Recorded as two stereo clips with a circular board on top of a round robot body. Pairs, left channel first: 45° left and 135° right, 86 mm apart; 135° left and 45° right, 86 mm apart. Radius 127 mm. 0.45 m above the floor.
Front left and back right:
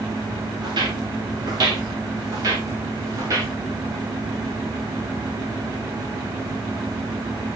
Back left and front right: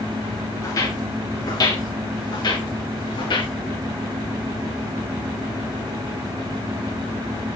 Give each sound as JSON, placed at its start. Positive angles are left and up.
{"t": 0.6, "sound": "footsteps", "azimuth_deg": -170, "distance_m": 5.5}